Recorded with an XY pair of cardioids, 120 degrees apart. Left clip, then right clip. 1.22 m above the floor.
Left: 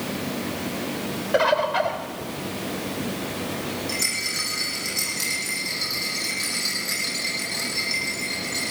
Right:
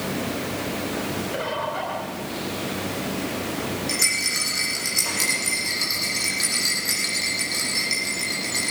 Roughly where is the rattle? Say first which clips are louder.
Right 4 dB; ahead right.